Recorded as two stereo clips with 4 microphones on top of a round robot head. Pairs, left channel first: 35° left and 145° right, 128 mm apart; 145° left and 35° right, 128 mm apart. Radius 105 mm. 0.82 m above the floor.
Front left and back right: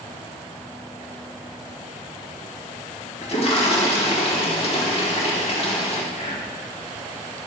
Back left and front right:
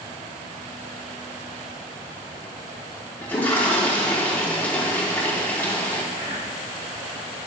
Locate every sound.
3.2 s a toilet flushing: 70° left, 3 m
6.1 s whispering: 20° left, 6 m